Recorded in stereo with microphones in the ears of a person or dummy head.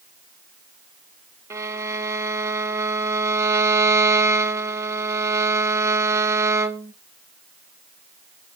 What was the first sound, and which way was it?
A violin, 15° right (ahead or behind).